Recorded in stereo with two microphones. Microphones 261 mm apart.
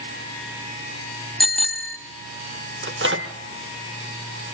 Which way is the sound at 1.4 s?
Centre (ahead or behind).